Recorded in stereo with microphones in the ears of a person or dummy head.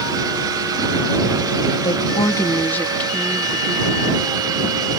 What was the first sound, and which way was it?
A woman speaking, 30° left (ahead or behind).